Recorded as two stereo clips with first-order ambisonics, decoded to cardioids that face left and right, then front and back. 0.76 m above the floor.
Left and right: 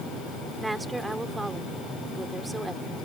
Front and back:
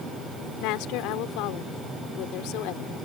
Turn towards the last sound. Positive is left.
turn(degrees=-5)